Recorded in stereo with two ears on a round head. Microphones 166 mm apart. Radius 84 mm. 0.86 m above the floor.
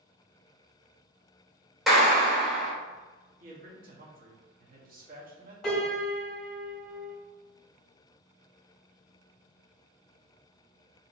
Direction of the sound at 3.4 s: 50° right (ahead or behind).